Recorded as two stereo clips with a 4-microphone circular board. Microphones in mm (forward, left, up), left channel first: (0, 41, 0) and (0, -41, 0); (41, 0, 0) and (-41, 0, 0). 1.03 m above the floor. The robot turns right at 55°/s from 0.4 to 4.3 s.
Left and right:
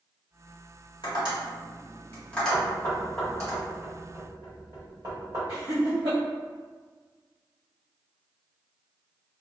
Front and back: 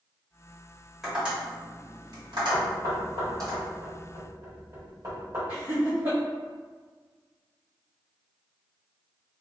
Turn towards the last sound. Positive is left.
turn(degrees=-120)